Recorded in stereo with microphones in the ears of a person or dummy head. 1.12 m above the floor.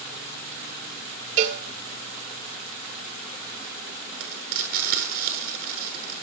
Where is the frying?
50° right (ahead or behind), 7.5 m.